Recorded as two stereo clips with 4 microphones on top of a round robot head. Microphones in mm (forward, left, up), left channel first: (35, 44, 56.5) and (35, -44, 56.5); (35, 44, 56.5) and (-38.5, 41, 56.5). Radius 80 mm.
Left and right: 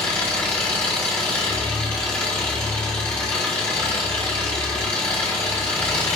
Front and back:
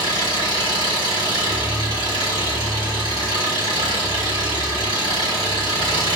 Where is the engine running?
165° left, 1.7 m.